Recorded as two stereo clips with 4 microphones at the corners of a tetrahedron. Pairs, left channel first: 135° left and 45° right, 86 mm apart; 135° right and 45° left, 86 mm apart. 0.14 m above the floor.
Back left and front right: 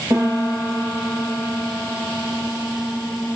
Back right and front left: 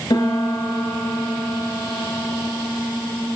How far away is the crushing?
No crushing in this recording.